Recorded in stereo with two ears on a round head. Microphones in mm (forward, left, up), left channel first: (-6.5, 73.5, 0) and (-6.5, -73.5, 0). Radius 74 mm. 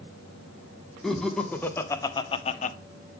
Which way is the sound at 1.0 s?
Centre (ahead or behind).